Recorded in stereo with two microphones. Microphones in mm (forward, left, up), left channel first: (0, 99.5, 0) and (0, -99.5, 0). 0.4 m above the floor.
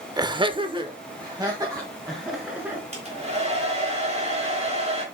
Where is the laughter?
20° right (ahead or behind), 0.8 m; by 2.8 s 15° right (ahead or behind), 3.5 m.